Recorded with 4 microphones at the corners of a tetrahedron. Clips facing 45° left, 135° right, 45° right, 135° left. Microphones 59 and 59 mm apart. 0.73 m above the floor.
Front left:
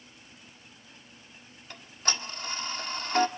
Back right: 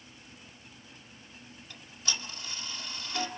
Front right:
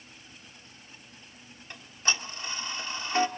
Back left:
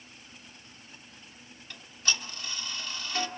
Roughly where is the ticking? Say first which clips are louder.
Front left 5 dB, front right 2 dB; ahead.